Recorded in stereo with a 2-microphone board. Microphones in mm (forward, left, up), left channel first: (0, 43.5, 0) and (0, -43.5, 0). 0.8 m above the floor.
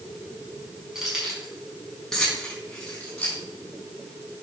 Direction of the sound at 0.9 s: 5° right (ahead or behind).